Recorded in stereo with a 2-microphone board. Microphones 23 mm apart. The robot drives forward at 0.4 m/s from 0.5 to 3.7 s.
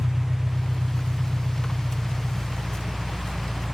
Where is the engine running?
20° right (ahead or behind), 0.8 m; by 3.8 s 10° right (ahead or behind), 2 m.